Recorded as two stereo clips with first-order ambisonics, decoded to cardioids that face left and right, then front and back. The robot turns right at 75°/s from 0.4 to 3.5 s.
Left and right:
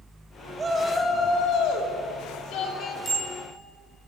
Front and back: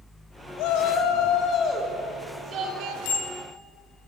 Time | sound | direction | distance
0.6 | a shout | 20° right | 2.5 m
3.0 | a bicycle bell | 15° left | 4.5 m